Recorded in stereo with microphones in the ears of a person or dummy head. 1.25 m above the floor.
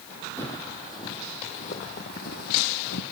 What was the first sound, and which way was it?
Footsteps, 15° left (ahead or behind).